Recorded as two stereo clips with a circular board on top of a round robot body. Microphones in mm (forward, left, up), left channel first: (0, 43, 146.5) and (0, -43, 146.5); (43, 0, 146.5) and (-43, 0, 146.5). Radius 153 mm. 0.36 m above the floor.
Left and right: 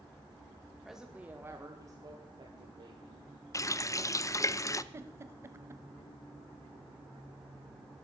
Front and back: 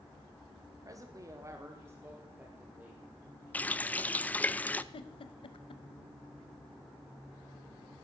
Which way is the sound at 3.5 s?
60° left.